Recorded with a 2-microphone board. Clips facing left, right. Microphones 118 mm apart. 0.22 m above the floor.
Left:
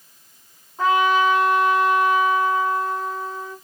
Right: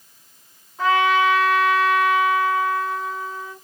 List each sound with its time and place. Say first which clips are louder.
0.8 s a trumpet: even; 20° left (ahead or behind), 1.8 m